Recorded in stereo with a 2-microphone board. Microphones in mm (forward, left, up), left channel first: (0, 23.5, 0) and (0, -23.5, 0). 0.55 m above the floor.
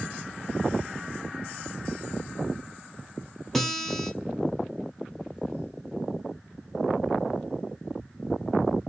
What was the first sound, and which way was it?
A guitar, 10° left (ahead or behind).